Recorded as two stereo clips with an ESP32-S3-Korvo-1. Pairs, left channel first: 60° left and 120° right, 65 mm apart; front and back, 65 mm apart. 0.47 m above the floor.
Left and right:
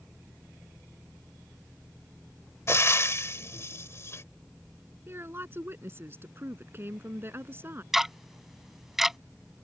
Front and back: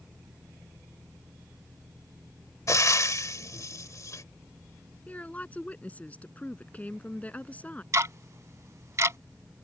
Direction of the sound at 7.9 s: 155° left.